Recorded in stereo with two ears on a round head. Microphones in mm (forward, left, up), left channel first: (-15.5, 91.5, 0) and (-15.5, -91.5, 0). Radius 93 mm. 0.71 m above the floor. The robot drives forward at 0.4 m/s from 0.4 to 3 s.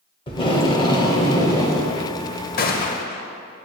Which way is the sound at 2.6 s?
45° left (ahead or behind).